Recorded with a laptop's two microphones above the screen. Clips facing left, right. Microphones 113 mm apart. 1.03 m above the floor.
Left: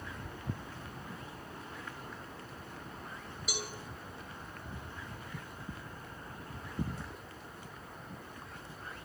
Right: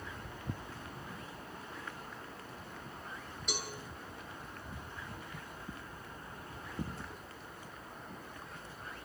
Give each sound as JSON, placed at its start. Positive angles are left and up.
{"t": 3.5, "sound": "a cowbell", "side_deg": 5, "distance_m": 2.5}